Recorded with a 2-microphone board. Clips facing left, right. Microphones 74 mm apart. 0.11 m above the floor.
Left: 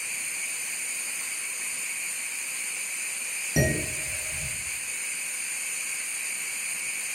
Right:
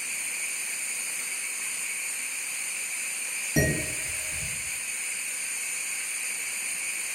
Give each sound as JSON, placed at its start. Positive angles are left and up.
{"t": 3.6, "sound": "dishes clattering", "side_deg": 10, "distance_m": 1.9}